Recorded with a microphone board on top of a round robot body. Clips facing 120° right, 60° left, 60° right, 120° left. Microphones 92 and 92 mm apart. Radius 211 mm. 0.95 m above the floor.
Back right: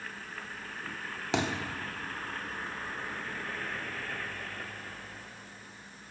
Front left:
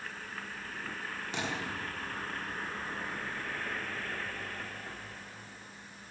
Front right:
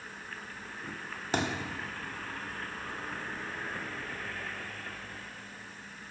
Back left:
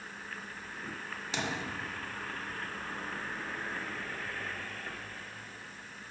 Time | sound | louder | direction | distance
1.3 | a thud | back right 6 dB, front right 4 dB | 110° right | 1.5 m